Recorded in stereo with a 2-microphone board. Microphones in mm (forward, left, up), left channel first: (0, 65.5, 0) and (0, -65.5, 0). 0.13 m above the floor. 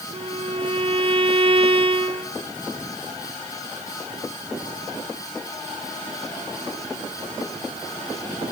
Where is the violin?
40° right (ahead or behind), 1.4 m.